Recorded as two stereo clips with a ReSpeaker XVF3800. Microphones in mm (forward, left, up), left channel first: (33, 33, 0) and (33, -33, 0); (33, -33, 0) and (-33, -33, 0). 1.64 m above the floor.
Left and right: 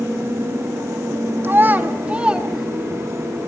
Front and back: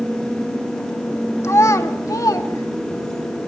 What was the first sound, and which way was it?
A child speaking, 40° right.